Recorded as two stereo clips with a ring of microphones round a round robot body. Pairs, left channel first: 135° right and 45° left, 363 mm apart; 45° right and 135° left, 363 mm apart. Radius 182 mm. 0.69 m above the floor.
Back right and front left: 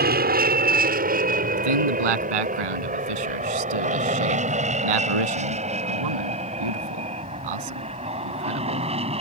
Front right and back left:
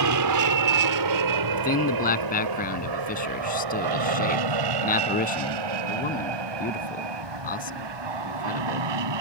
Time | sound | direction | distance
0.0 | an aircraft | 105° left | ?
1.5 | a man speaking | 25° left | ?